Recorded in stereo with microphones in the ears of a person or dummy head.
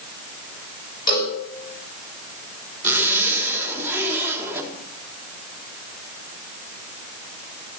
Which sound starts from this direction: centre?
A zipper, at 2.8 s.